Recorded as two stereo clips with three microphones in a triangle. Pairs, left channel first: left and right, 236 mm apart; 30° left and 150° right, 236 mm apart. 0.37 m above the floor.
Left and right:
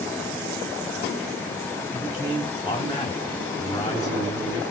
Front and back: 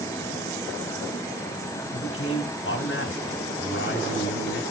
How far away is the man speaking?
About 2 m.